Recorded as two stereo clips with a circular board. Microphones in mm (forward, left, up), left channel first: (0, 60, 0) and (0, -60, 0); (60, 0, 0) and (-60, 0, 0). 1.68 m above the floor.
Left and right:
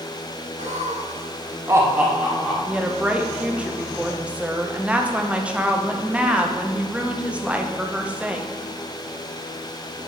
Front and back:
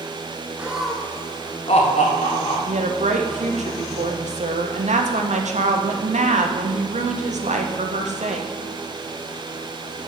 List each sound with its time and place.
0.6 s laughter: 100° right, 1.2 m; by 2.6 s 5° left, 1.8 m
2.7 s a woman speaking: 170° right, 0.8 m